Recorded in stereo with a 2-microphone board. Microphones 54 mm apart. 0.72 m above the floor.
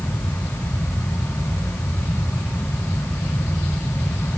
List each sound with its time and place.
Only background noise.